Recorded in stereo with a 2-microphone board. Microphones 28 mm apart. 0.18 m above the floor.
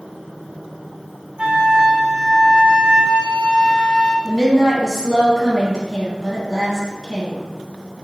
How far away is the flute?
About 1.0 m.